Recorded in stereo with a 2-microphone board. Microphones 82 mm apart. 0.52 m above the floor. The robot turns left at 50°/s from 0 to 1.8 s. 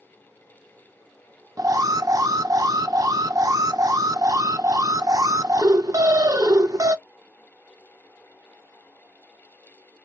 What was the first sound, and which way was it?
An alarm, 40° right (ahead or behind).